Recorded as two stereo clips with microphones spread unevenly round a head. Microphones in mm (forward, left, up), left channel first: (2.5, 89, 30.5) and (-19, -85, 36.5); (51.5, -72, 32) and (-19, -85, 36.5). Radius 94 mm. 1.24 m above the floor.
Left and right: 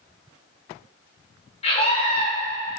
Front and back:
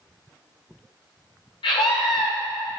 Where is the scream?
20° left, 4 m.